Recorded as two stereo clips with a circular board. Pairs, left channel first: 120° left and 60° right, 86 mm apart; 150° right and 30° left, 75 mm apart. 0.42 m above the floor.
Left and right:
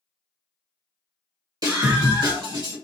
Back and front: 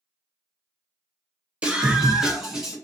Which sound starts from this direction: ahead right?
A scream, at 1.6 s.